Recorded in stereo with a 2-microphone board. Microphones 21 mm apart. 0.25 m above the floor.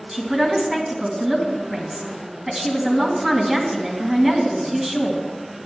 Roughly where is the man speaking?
Right.